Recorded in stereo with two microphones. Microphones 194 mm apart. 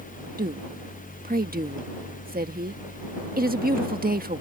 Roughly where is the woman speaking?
Right.